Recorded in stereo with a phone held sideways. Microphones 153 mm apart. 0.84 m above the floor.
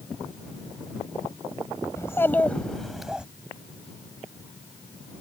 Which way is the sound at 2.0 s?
20° left (ahead or behind).